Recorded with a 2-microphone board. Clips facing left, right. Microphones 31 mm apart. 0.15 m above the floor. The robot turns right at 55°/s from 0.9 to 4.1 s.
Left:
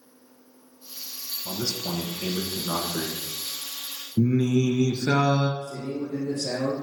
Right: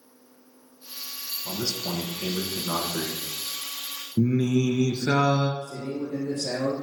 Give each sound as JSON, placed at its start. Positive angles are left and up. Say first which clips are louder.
{"t": 1.4, "sound": "a man speaking", "louder": "even", "side_deg": 0, "distance_m": 1.2}
{"t": 4.2, "sound": "singing", "louder": "left 1 dB", "side_deg": -10, "distance_m": 0.8}
{"t": 5.6, "sound": "a man speaking", "louder": "even", "side_deg": -30, "distance_m": 3.5}